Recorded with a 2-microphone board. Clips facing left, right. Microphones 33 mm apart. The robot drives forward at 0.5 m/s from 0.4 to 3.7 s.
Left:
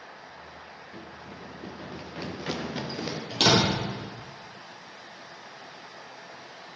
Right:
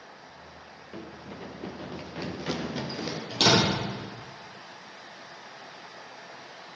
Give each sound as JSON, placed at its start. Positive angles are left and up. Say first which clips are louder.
{"t": 0.9, "sound": "running footsteps", "louder": "right 4 dB", "side_deg": -70, "distance_m": 1.1}
{"t": 3.3, "sound": "a door slam", "louder": "even", "side_deg": 20, "distance_m": 4.5}